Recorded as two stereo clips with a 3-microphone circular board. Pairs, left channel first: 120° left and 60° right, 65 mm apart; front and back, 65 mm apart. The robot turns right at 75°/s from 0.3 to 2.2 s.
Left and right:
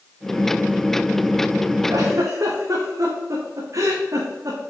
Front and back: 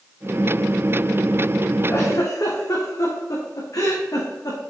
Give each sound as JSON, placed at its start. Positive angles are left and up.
{"t": 1.9, "sound": "a giggle", "azimuth_deg": -50, "distance_m": 3.5}